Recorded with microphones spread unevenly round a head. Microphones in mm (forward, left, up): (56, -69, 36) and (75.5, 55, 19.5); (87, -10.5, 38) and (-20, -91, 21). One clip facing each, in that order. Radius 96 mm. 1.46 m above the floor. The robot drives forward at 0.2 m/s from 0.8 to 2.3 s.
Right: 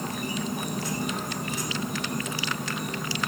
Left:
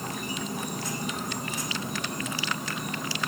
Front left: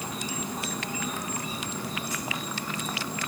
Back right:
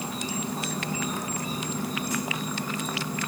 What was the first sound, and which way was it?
An insect, 110° right.